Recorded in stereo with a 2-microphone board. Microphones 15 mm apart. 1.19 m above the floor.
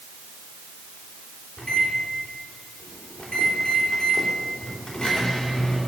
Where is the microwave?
75° left (ahead or behind), 3 m.